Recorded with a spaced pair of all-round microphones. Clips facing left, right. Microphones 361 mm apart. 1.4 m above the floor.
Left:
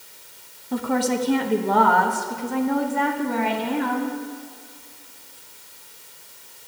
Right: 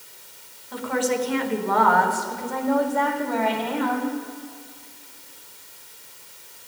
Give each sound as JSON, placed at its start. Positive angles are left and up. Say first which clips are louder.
{"t": 0.7, "sound": "a woman speaking", "louder": "left 2 dB", "side_deg": 60, "distance_m": 1.0}